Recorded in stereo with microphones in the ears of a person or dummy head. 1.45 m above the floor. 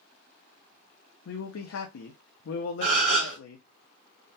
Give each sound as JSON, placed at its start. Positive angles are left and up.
{"t": 1.2, "sound": "a man speaking", "side_deg": 70, "distance_m": 0.5}
{"t": 2.8, "sound": "a gasp", "side_deg": -40, "distance_m": 1.1}